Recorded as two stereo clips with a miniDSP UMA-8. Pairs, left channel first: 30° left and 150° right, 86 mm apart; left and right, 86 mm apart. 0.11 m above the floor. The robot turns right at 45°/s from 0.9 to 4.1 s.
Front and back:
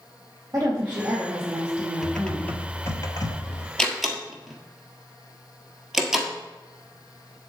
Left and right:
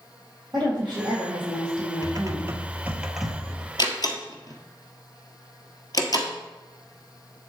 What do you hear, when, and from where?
0.5 s a woman speaking: 105° right, 4 m; by 2.5 s 30° right, 4 m
2.0 s typing on a keyboard: 60° right, 1.0 m; by 3.7 s 15° left, 1.0 m
3.8 s a door slam: 110° left, 1.5 m; by 6.3 s 125° left, 1.5 m